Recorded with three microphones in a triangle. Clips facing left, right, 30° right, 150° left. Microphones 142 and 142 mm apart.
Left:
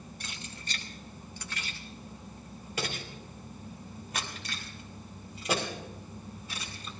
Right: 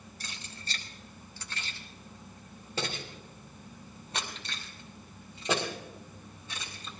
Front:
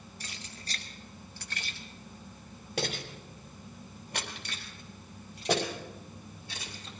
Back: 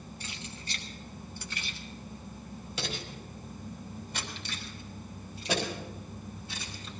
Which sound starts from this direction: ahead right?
Keys jangling, at 0.2 s.